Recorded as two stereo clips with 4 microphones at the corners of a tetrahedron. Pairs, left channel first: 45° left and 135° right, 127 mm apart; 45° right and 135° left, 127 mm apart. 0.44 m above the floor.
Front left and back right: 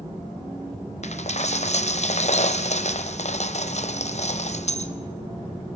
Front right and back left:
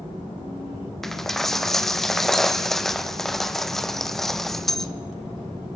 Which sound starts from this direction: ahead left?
A dropped coin, at 1.0 s.